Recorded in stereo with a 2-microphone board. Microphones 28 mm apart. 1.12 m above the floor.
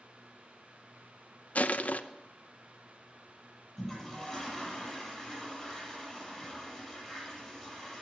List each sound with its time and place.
1.6 s crushing: 65° left (ahead or behind), 0.7 m
3.8 s a toilet flushing: 15° left (ahead or behind), 10 m